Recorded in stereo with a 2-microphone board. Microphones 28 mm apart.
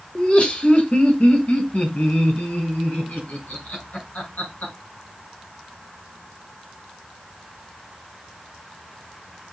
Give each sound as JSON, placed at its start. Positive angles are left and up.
{"t": 0.1, "sound": "laughter", "side_deg": 35, "distance_m": 1.4}